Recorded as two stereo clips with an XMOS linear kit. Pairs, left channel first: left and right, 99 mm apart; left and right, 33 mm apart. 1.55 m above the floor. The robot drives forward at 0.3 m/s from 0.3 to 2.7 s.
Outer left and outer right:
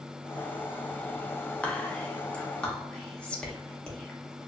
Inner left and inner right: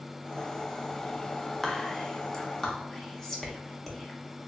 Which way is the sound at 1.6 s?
15° left (ahead or behind).